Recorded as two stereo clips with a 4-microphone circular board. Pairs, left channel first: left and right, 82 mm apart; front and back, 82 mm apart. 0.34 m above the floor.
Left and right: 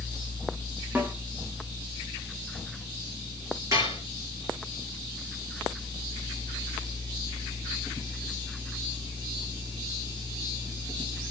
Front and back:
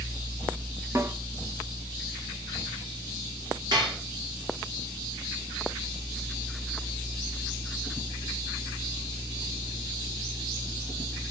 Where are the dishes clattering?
140° right, 5 m.